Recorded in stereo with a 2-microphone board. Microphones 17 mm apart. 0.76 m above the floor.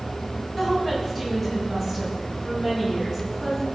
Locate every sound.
0.6 s a woman speaking: centre (ahead or behind), 5 m